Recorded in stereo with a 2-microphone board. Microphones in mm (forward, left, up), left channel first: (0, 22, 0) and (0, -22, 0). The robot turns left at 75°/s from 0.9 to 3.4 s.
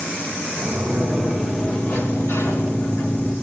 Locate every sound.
0.6 s a sliding door: 155° right, 8 m; by 3.3 s 20° left, 8 m